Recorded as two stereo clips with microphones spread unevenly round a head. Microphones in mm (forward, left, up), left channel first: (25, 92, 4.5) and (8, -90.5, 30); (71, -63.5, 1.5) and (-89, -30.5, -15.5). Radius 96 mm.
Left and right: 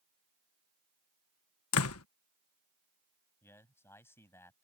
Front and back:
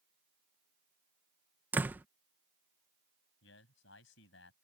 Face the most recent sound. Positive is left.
turn(degrees=5)